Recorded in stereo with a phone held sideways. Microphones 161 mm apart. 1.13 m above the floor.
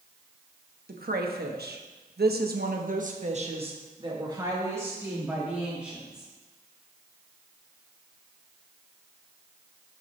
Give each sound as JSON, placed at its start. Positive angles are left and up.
{"t": 0.9, "sound": "a woman speaking", "side_deg": -70, "distance_m": 1.5}